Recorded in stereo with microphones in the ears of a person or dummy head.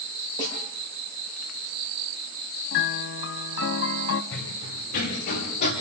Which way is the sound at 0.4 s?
20° left (ahead or behind).